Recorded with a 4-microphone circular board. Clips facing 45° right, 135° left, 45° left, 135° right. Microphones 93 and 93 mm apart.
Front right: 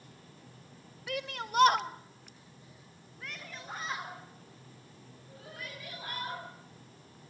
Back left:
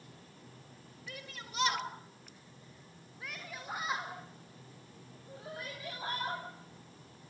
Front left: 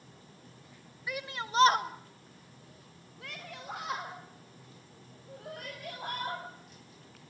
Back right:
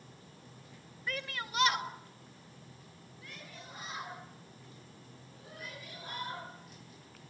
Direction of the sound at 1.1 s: 35° right.